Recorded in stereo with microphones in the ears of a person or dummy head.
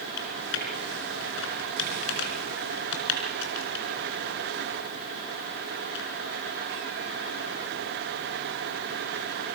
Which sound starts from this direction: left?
Typing on a keyboard, at 0.2 s.